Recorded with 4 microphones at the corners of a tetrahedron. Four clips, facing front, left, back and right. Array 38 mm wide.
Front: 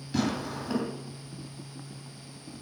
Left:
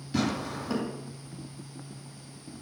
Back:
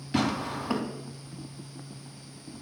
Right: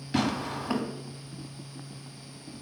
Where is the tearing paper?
130° right, 2.5 m.